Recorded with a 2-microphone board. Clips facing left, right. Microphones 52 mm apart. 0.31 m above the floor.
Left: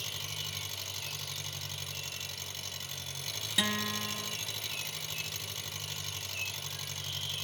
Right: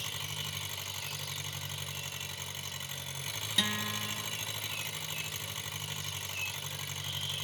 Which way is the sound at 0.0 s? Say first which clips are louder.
Right 1 dB; 20° right (ahead or behind).